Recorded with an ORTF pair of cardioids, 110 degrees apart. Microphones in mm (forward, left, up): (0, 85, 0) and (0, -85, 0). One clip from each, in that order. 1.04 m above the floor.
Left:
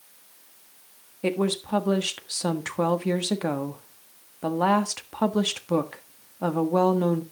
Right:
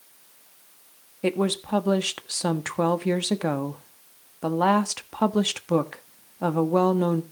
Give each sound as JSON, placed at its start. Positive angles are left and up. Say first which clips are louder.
{"t": 1.2, "sound": "a woman speaking", "louder": "right 1 dB", "azimuth_deg": -10, "distance_m": 1.3}